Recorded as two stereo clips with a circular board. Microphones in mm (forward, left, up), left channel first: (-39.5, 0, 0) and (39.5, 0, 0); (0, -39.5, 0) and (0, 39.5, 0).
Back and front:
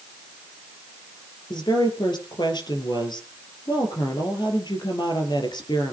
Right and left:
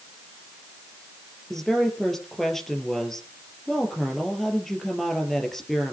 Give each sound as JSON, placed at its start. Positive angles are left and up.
{"t": 1.5, "sound": "a woman speaking", "azimuth_deg": -175, "distance_m": 3.5}